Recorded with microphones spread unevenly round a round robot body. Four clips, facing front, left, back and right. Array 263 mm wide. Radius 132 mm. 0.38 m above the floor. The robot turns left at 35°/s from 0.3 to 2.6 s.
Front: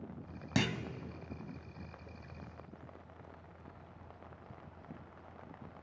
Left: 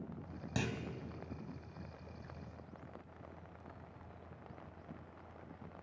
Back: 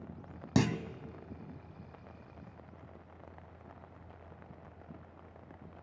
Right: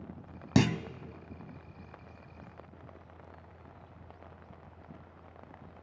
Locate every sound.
0.6 s a clunk: 105° right, 0.9 m; by 0.8 s 115° right, 0.9 m